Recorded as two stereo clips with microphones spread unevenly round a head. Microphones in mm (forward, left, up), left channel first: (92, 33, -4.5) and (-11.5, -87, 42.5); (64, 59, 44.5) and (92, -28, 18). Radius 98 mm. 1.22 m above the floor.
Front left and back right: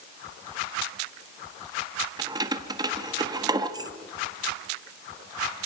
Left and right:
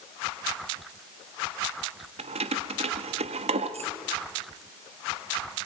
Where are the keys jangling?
70° right, 1.3 m.